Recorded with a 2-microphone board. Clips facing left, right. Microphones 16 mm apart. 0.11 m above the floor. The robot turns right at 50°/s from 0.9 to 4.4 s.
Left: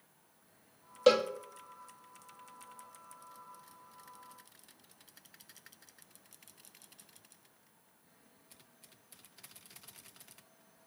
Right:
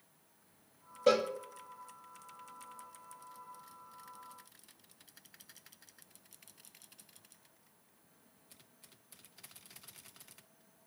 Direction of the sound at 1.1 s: 70° left (ahead or behind).